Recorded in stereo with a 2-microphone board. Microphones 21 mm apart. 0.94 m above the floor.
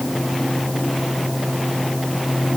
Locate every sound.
Only background noise.